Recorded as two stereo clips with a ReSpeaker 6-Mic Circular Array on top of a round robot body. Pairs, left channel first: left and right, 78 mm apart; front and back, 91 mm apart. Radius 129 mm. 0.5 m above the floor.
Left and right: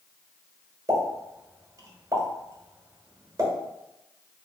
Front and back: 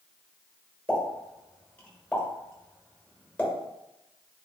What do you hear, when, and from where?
0.9 s a pop: 70° right, 1.3 m